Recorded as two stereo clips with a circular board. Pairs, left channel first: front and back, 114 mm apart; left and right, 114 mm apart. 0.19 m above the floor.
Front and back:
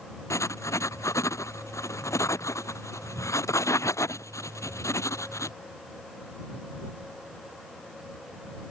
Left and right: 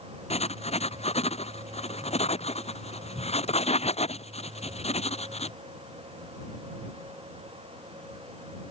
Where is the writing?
65° left.